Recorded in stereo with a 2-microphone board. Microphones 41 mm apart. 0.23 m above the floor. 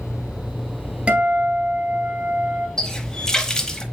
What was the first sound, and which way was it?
A guitar, 30° right (ahead or behind).